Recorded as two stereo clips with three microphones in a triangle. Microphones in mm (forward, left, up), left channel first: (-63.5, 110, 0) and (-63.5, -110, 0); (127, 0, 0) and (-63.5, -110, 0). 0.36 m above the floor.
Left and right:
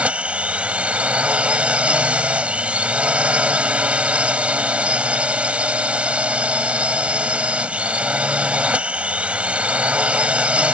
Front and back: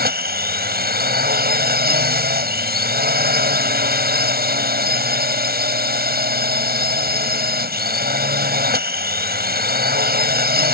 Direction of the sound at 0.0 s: 175° right.